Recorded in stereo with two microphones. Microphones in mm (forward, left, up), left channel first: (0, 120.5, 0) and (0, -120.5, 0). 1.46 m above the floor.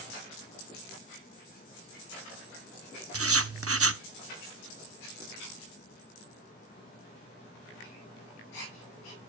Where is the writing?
70° right (ahead or behind), 0.6 m.